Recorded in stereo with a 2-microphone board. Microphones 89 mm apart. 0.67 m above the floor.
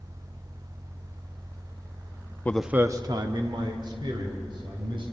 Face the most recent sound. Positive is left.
turn(degrees=-70)  # may be behind; listen again after turning